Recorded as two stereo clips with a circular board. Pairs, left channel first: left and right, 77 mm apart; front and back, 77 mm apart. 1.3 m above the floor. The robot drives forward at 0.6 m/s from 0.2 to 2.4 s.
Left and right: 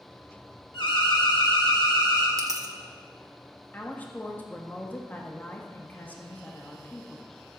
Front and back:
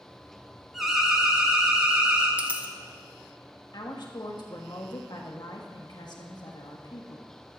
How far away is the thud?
I don't hear a thud.